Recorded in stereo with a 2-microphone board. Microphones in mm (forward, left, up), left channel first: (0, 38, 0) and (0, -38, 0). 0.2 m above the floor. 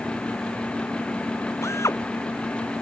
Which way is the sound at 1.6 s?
40° left (ahead or behind).